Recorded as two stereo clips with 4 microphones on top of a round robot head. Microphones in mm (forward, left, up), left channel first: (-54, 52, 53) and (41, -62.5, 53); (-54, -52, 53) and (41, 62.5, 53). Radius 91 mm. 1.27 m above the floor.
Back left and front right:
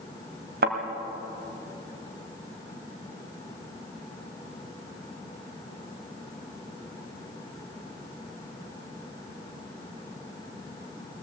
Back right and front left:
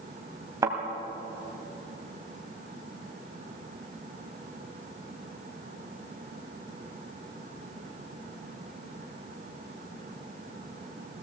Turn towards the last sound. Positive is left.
turn(degrees=-20)